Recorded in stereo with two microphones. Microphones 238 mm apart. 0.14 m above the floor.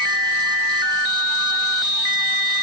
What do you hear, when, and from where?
Only background noise.